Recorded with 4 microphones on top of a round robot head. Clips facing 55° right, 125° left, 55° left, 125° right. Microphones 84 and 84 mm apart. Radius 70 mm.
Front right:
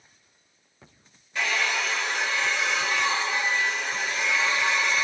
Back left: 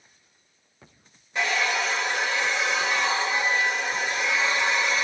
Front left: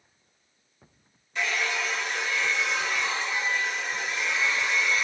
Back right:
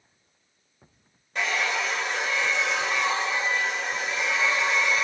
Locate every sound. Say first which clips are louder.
1.4 s a hair dryer: back left 2 dB, back right 2 dB; 170° right, 2.5 m